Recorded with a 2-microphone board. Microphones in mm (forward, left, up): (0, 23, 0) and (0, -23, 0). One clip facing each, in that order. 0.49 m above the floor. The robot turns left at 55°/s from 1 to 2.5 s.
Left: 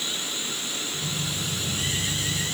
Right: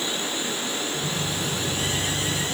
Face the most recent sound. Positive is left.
No sound to turn to.